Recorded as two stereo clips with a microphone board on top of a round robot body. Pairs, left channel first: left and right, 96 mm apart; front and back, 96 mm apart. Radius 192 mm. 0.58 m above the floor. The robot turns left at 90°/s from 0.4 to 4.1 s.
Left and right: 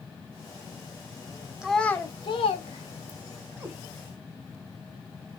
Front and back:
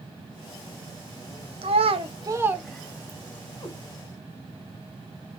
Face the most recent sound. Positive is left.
turn(degrees=-80)